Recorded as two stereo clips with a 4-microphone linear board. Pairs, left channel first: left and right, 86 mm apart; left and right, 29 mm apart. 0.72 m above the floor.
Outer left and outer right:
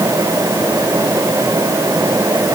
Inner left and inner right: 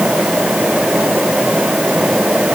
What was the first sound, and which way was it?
Only background noise.